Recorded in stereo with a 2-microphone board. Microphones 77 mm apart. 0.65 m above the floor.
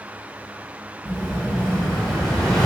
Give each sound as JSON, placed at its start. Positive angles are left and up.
{"t": 1.1, "sound": "an explosion", "side_deg": 10, "distance_m": 1.1}